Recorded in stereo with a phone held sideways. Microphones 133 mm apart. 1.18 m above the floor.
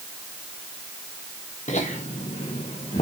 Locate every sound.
1.7 s laughter: 60° left (ahead or behind), 1.2 m; by 3.0 s 55° left (ahead or behind), 1.6 m